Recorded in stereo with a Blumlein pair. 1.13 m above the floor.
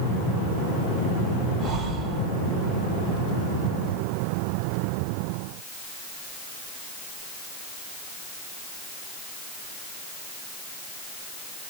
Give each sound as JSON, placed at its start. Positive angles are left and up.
{"t": 1.6, "sound": "breathing", "azimuth_deg": -25, "distance_m": 1.6}